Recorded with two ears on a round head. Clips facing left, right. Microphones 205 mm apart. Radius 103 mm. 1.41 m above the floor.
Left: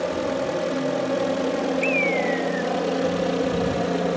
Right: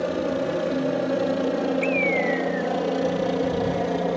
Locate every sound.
0.0 s a helicopter: 10° right (ahead or behind); by 4.2 s 5° left (ahead or behind)
1.8 s a bird: 10° left (ahead or behind)